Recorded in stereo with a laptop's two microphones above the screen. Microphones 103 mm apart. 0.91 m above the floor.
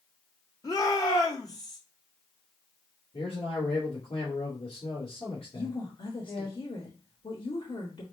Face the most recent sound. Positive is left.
turn(degrees=55)  # may be behind; listen again after turning